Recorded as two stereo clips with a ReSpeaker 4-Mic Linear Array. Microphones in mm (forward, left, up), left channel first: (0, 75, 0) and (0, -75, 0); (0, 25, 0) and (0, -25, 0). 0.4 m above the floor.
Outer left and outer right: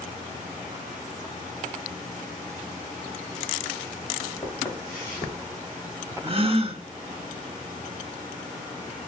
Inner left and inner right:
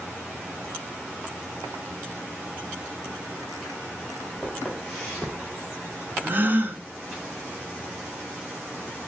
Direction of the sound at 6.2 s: 40° right (ahead or behind).